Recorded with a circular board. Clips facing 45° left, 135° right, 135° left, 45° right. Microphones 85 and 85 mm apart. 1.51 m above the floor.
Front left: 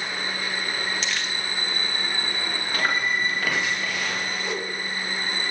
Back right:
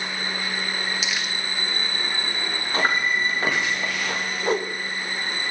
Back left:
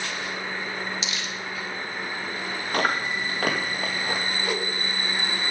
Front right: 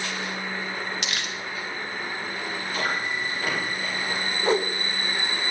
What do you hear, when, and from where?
1.0 s crumpling: 50° right, 1.2 m
2.7 s chewing: 165° left, 2 m
4.4 s a whoosh: 95° right, 1.0 m